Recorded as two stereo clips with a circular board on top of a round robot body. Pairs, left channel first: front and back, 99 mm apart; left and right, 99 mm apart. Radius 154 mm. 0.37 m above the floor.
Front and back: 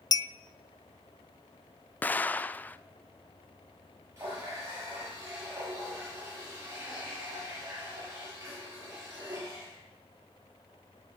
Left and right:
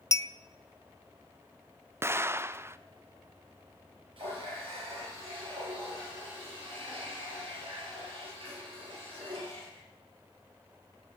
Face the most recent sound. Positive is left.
turn(degrees=-120)